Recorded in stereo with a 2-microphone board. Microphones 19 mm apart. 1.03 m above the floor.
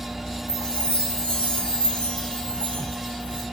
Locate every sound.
0.5 s a chime: 55° left (ahead or behind), 1.1 m